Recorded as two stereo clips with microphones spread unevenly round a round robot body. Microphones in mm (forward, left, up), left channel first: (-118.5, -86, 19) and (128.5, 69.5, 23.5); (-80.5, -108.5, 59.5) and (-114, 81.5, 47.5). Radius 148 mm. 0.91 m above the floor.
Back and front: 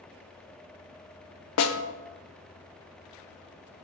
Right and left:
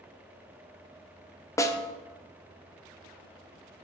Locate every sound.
1.6 s a snare drum: 145° right, 0.6 m